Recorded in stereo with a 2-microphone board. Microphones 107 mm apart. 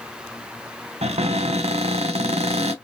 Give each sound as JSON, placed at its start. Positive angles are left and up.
{"t": 1.0, "sound": "a cupboard door", "side_deg": -80, "distance_m": 0.8}